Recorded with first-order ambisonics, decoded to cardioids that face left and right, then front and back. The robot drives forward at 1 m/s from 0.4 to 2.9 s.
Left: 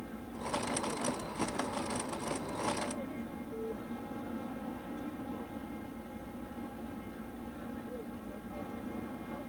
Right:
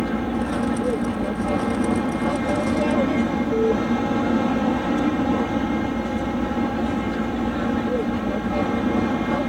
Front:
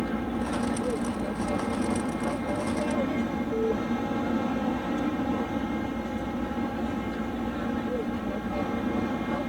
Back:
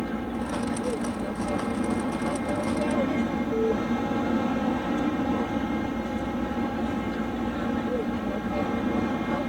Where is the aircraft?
90° right; by 9.5 s 100° right.